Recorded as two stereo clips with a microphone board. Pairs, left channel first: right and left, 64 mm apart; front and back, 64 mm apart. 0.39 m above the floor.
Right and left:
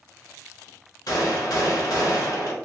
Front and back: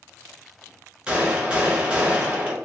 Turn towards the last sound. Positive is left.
turn(degrees=-110)